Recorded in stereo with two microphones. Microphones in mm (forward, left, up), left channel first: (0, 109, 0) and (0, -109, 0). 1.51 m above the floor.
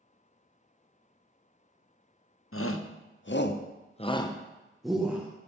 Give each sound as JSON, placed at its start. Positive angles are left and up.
{"t": 2.5, "sound": "a shout", "side_deg": 80, "distance_m": 0.9}